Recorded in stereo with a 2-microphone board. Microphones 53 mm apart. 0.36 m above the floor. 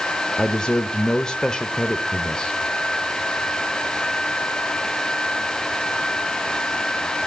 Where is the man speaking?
15° left (ahead or behind), 1.0 m.